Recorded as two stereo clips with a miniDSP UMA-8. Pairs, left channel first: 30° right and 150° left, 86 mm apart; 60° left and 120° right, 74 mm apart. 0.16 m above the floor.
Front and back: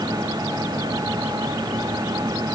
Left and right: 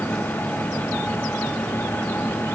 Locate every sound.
Only background noise.